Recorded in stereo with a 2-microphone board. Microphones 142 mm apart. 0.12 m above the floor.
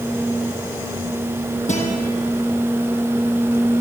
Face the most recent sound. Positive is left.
turn(degrees=55)  # may be behind; listen again after turning